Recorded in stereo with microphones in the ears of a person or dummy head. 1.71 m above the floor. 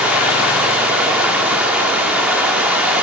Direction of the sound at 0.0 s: 5° right (ahead or behind).